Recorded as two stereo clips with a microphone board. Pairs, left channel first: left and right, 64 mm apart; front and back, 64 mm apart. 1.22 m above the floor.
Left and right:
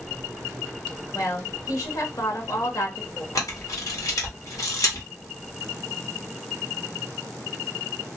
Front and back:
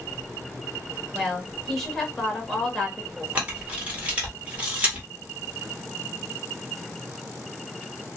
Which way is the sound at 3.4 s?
110° left.